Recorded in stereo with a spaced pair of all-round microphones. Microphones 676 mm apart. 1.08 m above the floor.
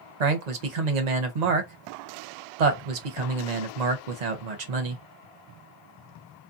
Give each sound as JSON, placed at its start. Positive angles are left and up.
{"t": 0.2, "sound": "a man speaking", "side_deg": -80, "distance_m": 0.8}